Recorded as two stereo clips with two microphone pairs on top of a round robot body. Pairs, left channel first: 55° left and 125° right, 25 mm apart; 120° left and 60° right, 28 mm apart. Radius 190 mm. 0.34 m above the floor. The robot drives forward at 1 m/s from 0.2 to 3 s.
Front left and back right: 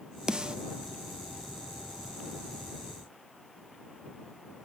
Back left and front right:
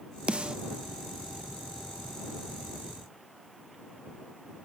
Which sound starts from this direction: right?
A snare drum, at 0.3 s.